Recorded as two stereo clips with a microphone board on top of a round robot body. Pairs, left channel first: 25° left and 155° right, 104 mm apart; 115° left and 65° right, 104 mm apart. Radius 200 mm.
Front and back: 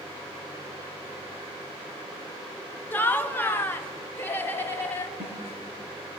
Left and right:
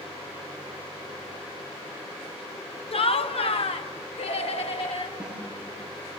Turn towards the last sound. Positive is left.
turn(degrees=-150)